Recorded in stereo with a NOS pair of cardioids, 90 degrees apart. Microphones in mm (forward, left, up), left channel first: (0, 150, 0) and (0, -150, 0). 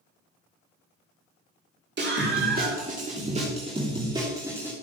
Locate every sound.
2.0 s a scream: 35° right, 3.5 m; by 4.7 s 5° right, 3 m